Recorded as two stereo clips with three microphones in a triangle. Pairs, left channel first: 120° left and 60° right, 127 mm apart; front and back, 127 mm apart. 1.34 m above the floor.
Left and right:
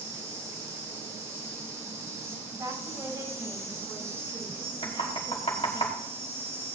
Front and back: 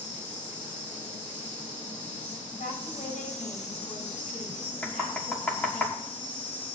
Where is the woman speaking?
Straight ahead, 8.5 m.